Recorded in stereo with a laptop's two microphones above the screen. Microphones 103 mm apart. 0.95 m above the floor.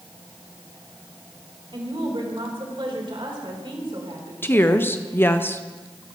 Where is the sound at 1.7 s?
55° right (ahead or behind), 3.5 m.